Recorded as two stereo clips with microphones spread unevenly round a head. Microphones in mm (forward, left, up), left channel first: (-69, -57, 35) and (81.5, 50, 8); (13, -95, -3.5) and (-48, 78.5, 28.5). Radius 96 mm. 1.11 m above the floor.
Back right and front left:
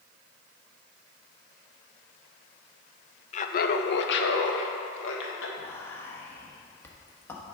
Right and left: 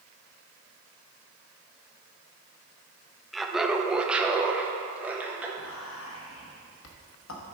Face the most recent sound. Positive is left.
turn(degrees=-65)